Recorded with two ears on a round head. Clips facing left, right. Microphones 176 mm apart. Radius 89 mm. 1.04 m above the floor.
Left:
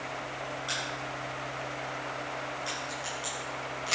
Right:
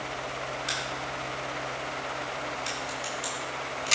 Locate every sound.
0.7 s a crack: 20° right (ahead or behind), 6 m